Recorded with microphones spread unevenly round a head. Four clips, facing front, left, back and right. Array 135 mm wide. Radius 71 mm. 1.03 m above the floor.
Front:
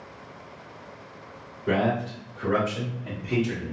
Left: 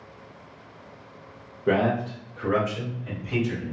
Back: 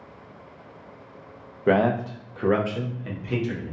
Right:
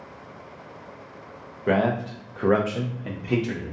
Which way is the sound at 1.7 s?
175° right.